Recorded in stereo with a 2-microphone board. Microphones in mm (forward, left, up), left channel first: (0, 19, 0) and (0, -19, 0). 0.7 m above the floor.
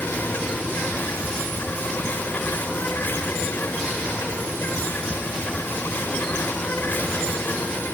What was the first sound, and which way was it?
An insect, 55° left (ahead or behind).